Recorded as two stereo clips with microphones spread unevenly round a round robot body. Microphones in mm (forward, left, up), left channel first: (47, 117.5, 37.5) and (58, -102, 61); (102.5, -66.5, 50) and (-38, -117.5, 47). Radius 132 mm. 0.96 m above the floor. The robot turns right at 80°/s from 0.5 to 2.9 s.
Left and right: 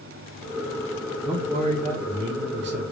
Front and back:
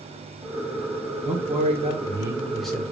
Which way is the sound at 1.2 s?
Straight behind.